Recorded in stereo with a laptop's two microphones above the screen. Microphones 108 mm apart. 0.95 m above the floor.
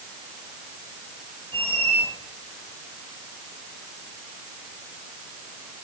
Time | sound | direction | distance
1.5 | a squeak | 50° right (ahead or behind) | 3.5 m